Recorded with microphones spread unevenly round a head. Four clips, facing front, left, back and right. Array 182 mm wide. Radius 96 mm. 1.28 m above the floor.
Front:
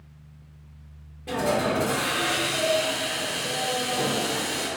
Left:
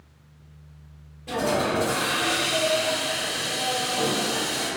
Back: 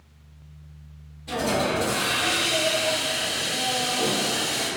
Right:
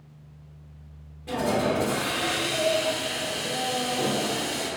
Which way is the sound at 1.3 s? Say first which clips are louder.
Left 1 dB, even; 10° left.